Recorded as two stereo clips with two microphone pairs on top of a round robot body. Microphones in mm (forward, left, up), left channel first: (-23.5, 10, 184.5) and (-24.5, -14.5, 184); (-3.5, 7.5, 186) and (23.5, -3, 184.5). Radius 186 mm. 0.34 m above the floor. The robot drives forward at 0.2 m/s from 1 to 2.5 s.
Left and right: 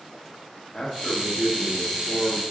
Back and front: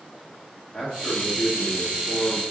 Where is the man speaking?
135° left, 1.3 m; by 2.5 s 150° left, 1.4 m.